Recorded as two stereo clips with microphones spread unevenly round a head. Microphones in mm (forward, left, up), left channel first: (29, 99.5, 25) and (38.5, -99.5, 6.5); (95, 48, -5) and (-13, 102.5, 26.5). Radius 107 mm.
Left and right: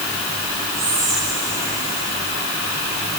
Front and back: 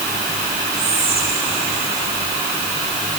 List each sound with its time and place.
0.7 s whispering: 165° right, 8 m